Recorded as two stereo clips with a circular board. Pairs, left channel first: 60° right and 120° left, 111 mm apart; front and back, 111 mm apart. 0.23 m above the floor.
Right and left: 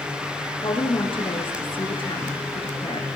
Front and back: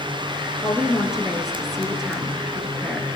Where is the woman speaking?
90° right, 4.5 m.